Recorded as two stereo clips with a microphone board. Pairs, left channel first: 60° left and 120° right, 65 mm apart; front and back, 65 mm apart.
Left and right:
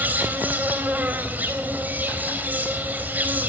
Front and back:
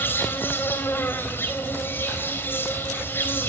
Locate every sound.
0.0 s an insect: 55° right, 3.5 m